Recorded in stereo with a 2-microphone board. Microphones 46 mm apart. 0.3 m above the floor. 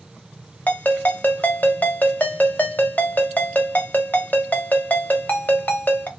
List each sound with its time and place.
0.7 s a ringtone: 35° left (ahead or behind), 0.8 m